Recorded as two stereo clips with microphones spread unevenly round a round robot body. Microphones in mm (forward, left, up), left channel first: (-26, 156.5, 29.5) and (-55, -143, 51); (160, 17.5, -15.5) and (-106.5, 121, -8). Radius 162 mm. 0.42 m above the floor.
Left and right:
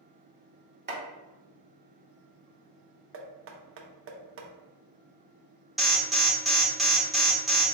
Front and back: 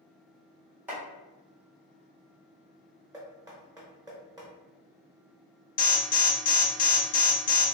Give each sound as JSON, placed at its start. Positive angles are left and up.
{"t": 0.9, "sound": "chopping", "azimuth_deg": -120, "distance_m": 1.2}
{"t": 3.1, "sound": "knocking", "azimuth_deg": -125, "distance_m": 0.7}
{"t": 5.8, "sound": "an alarm", "azimuth_deg": 0, "distance_m": 0.7}